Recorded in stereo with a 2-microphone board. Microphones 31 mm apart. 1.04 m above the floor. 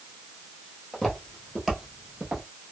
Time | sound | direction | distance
0.9 | footsteps | 5° left (ahead or behind) | 1.3 m